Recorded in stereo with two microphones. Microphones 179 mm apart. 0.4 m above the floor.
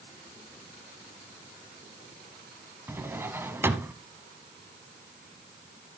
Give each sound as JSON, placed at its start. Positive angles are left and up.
{"t": 2.9, "sound": "a drawer", "side_deg": -15, "distance_m": 1.2}